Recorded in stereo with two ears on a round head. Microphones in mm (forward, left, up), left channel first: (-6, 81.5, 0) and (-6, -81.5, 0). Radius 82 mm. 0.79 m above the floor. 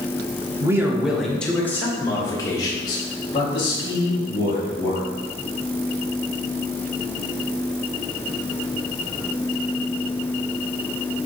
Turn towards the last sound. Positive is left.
turn(degrees=35)  # may be behind; listen again after turning